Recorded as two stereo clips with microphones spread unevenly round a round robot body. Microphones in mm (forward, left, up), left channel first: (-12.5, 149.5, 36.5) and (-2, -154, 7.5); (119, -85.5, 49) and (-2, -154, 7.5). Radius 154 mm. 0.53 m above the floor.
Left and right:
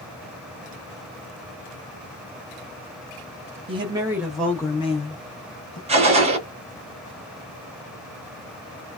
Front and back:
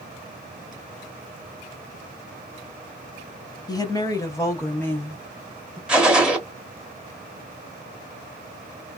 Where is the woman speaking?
45° right, 0.9 m; by 5.8 s 135° left, 1.0 m.